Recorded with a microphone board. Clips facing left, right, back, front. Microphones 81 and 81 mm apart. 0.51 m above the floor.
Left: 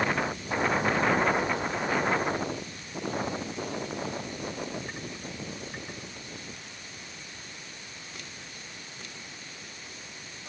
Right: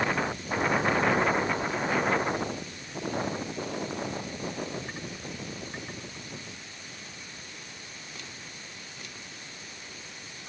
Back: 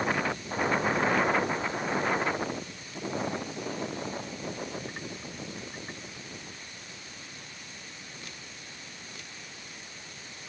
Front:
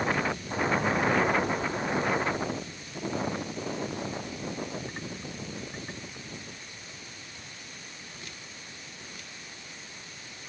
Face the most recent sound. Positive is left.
No sound to turn to.